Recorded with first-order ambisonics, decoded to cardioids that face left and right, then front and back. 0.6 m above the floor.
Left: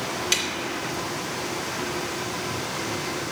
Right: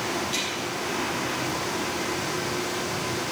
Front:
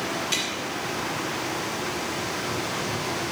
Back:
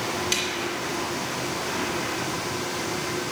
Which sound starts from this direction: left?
A snare drum, at 0.3 s.